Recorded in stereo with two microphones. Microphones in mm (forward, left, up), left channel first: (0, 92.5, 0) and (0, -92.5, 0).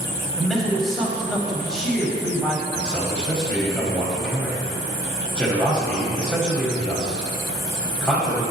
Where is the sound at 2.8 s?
5° left (ahead or behind), 1.4 m.